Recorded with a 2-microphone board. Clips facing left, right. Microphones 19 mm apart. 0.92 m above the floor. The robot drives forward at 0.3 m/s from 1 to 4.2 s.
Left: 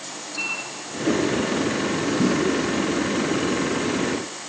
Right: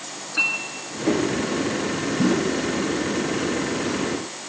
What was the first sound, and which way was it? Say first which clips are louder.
A clink: right 6 dB; 35° right (ahead or behind).